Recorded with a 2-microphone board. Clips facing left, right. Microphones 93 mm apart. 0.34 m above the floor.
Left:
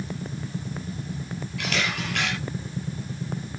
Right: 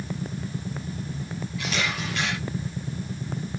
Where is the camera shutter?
70° left (ahead or behind), 6.5 m.